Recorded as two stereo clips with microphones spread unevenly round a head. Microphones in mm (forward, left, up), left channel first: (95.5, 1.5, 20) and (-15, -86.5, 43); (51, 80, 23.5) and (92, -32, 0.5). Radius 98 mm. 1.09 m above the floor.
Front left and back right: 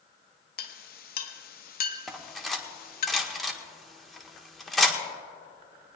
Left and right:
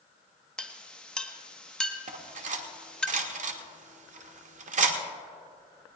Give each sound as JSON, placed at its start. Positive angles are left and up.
{"t": 0.6, "sound": "a clink", "azimuth_deg": 25, "distance_m": 1.2}
{"t": 2.1, "sound": "cutlery clinking", "azimuth_deg": -55, "distance_m": 1.4}